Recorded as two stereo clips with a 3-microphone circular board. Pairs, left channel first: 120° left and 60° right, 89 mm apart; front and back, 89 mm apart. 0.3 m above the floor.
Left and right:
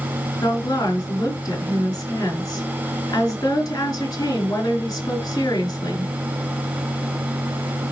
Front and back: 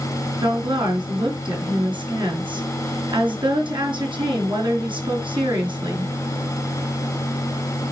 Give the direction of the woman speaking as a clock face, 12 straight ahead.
6 o'clock.